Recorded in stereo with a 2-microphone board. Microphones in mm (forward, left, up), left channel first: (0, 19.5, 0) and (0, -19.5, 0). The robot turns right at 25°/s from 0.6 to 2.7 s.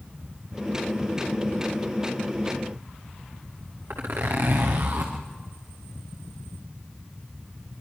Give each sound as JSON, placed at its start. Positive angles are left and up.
{"t": 3.9, "sound": "a zipper", "side_deg": -85, "distance_m": 5.0}